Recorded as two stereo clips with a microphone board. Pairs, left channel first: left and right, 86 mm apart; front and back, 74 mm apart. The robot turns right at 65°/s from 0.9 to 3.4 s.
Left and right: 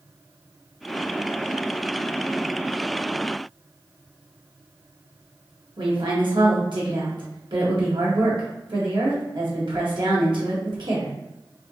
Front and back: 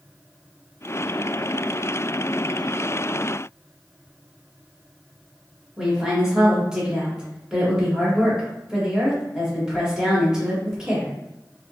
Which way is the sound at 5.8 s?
100° right.